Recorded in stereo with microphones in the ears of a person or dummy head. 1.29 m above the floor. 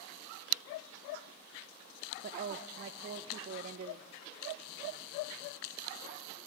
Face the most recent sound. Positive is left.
turn(degrees=-45)  # may be behind; listen again after turning